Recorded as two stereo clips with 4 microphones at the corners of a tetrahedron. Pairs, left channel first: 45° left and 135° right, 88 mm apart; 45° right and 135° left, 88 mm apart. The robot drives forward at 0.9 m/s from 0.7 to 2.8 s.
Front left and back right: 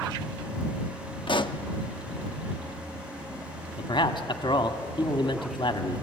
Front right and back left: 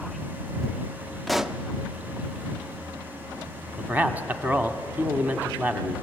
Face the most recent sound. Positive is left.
turn(degrees=65)